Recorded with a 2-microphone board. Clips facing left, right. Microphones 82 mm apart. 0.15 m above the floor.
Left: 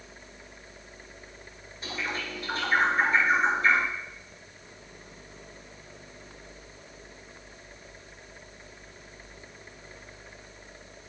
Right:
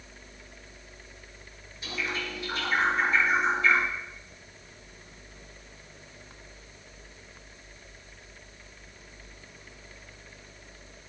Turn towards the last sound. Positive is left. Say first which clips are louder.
# even
turn(degrees=45)  # may be behind; listen again after turning